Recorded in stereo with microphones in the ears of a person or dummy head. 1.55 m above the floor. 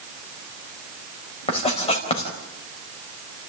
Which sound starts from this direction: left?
Writing, at 1.5 s.